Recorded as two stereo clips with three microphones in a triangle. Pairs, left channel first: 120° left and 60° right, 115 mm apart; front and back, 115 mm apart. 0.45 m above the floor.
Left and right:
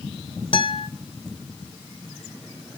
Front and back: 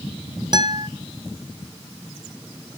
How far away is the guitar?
About 1.8 m.